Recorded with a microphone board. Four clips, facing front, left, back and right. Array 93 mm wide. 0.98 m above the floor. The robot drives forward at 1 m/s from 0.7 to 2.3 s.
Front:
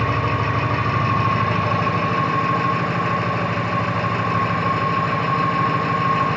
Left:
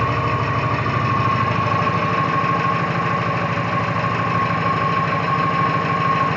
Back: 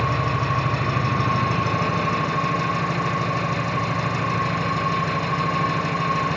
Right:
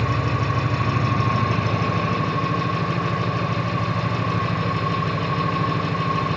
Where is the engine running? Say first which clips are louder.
Left 4 dB, front 2 dB; 45° left, 7 m; by 6.4 s 55° left, 6 m.